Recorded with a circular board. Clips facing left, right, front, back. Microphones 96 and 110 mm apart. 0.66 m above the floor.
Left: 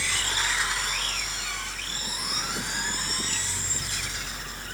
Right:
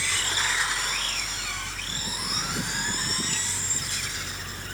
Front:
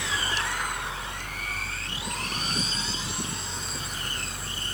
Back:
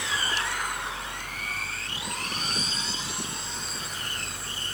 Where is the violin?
I don't hear a violin.